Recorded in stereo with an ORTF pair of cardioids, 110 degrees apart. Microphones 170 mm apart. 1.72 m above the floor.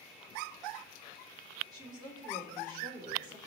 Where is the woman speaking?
25° right, 2.5 m.